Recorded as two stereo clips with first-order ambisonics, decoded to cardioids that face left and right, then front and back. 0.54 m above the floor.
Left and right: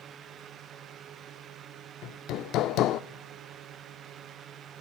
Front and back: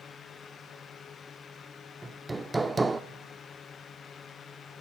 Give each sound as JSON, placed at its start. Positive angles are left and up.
{"t": 2.0, "sound": "hammering", "azimuth_deg": 100, "distance_m": 0.5}